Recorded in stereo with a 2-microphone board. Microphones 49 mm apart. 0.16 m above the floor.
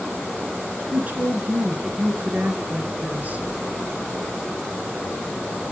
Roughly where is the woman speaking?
Right.